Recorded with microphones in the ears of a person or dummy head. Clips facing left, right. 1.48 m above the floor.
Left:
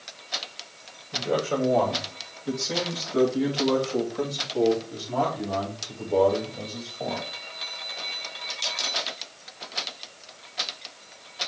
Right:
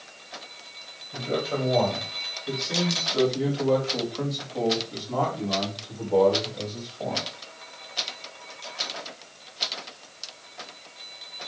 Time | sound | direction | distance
1.1 | a man speaking | 60° left (ahead or behind) | 3 m